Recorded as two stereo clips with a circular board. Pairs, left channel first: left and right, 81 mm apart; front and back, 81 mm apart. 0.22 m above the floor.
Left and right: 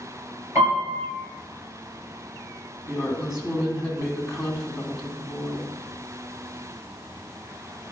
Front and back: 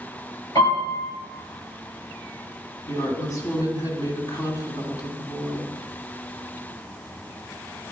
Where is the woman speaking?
5° right, 2 m.